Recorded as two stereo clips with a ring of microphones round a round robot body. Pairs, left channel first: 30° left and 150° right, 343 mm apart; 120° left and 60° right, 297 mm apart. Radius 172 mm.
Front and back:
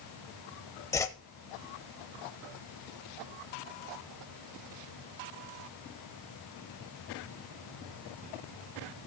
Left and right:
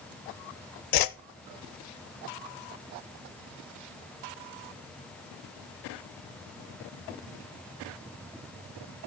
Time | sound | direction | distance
0.9 | a whoosh | 110° left | 0.6 m